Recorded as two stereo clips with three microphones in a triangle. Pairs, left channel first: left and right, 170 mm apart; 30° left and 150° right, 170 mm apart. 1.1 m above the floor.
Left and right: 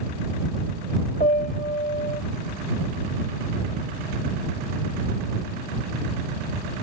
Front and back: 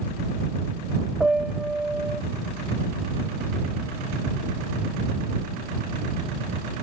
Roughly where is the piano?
Behind left.